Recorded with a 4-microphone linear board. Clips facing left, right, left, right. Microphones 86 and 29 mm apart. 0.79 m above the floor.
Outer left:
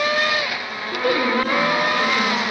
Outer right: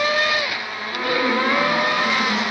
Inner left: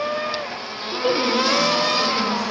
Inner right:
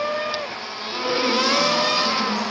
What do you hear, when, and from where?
0.9 s a woman speaking: 50° left (ahead or behind), 2 m